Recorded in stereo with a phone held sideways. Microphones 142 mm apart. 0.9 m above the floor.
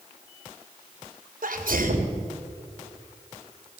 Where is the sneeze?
80° right, 3.5 m.